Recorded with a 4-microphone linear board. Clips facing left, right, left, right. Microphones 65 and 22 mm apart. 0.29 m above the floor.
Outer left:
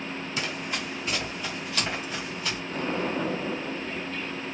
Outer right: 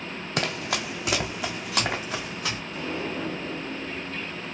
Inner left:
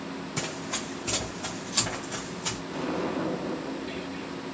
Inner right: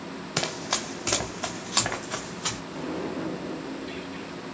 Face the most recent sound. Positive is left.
turn(degrees=40)  # may be behind; listen again after turning